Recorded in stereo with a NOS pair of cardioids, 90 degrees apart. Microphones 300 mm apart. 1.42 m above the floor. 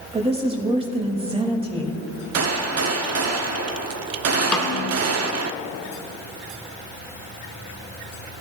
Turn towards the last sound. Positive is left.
turn(degrees=5)